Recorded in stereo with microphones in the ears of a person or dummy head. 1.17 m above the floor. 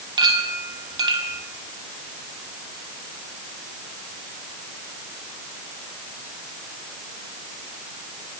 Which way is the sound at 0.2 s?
25° right (ahead or behind).